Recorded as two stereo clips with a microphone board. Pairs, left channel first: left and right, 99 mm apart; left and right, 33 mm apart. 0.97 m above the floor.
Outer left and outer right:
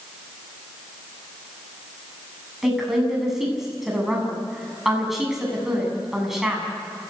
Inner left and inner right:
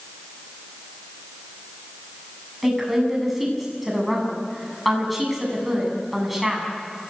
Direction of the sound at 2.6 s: 5° right (ahead or behind).